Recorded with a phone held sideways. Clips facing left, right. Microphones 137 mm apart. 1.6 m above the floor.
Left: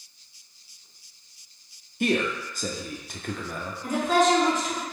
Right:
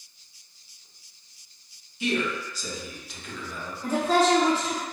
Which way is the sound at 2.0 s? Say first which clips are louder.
Left 3 dB; 55° left (ahead or behind).